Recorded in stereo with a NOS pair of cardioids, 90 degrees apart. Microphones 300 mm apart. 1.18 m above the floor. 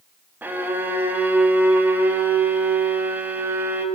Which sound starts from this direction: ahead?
A violin, at 0.4 s.